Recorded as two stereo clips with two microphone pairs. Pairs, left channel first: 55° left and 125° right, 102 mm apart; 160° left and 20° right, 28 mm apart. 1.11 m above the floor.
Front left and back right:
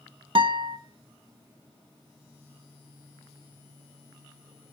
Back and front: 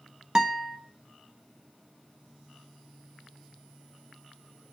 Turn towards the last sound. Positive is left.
turn(degrees=-95)